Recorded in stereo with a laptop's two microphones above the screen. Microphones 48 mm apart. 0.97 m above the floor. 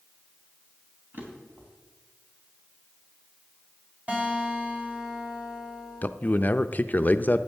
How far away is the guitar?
About 3.5 m.